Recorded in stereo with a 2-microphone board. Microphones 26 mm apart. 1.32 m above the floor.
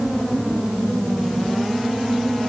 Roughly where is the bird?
I don't hear a bird.